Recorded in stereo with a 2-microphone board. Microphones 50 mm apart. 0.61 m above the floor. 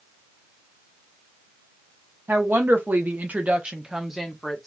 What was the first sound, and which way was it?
A woman speaking, 50° right (ahead or behind).